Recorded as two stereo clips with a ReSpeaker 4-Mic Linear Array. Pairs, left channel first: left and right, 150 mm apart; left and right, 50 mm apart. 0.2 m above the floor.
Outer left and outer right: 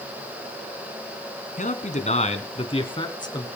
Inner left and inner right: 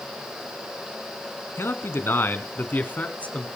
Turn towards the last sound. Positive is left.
turn(degrees=25)  # may be behind; listen again after turning